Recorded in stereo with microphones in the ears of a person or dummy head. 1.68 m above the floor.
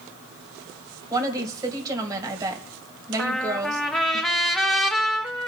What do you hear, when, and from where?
1.1 s a woman speaking: 20° right (ahead or behind), 1.9 m
3.2 s a trumpet: centre (ahead or behind), 0.8 m